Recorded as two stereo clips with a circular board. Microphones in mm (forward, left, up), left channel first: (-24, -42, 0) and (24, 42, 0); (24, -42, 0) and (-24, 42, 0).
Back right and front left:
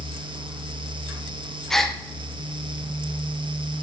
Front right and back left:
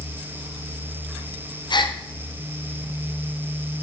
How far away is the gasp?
About 0.6 m.